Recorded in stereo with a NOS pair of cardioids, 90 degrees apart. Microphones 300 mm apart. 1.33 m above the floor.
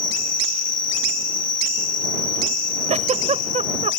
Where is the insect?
65° left.